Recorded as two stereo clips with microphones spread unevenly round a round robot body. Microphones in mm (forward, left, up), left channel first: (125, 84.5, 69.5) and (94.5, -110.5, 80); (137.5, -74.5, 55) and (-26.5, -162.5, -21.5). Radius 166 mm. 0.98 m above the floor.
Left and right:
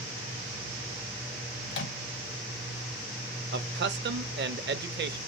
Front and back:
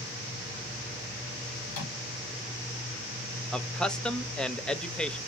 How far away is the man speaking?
About 0.8 m.